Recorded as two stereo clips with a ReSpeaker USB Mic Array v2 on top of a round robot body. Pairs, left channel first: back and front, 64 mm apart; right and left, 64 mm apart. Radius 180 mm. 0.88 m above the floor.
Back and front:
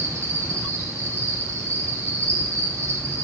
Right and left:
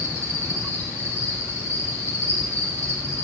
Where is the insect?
45° right, 4 m.